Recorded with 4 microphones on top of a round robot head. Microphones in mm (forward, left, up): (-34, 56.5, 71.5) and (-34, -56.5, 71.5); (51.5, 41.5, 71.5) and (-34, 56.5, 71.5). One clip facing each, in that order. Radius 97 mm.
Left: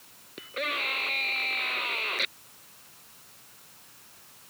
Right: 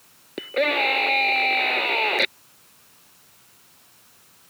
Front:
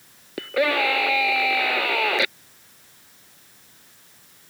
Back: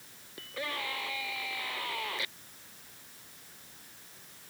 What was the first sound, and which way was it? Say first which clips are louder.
A scream: right 12 dB, front 17 dB; 50° right.